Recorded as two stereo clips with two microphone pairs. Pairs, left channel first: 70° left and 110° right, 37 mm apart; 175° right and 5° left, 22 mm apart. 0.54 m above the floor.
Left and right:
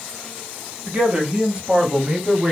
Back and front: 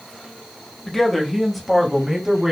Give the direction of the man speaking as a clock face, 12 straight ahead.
4 o'clock.